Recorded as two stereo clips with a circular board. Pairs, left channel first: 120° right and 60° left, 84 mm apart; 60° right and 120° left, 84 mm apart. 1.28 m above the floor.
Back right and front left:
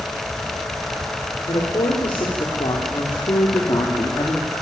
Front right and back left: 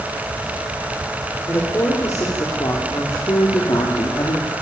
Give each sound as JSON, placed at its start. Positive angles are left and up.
{"t": 1.5, "sound": "a woman speaking", "azimuth_deg": -120, "distance_m": 4.0}